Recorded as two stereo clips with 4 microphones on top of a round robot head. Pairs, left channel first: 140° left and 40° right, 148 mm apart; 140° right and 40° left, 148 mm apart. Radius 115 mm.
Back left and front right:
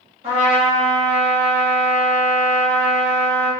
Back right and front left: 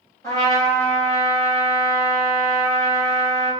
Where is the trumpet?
75° right, 1.5 m.